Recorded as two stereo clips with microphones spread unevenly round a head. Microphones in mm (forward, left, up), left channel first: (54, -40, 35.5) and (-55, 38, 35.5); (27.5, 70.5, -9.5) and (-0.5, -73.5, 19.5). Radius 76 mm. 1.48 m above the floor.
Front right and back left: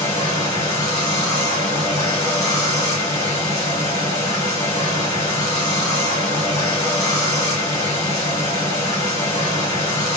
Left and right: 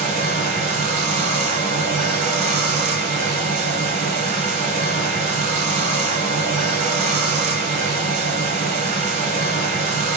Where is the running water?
100° right, 2 m.